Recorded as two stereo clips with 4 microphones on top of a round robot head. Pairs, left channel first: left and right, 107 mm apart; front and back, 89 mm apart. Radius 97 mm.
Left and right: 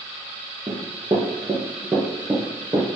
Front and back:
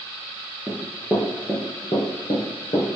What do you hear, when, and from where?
0.7 s running footsteps: 115° right, 1.1 m; by 2.9 s 20° right, 1.3 m